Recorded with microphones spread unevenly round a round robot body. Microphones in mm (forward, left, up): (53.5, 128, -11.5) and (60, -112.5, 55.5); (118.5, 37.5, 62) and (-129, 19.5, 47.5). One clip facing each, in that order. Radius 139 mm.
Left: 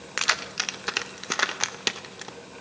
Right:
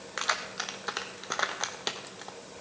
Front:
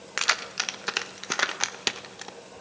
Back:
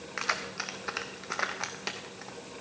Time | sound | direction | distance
0.2 | keys jangling | 50° left | 0.6 m